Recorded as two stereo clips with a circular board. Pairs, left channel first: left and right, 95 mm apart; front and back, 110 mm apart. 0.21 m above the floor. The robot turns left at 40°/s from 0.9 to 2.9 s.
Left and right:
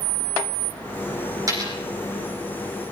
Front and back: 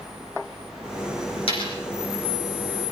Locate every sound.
1.5 s a dropped coin: 35° right, 5 m; by 1.8 s 45° right, 5 m